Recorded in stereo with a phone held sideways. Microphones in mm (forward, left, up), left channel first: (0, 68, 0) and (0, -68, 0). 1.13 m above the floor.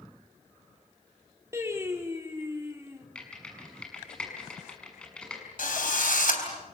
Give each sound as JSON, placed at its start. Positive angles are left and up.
{"t": 1.5, "sound": "singing", "side_deg": -20, "distance_m": 2.5}
{"t": 3.1, "sound": "typing on a keyboard", "side_deg": 5, "distance_m": 6.5}
{"t": 5.6, "sound": "a drill", "side_deg": 85, "distance_m": 4.0}